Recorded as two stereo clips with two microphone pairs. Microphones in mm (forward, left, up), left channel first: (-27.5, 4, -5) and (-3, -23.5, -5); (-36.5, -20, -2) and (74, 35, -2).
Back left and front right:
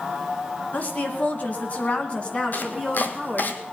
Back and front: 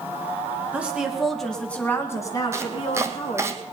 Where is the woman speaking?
100° left, 2.5 m; by 3.5 s 150° right, 2.5 m.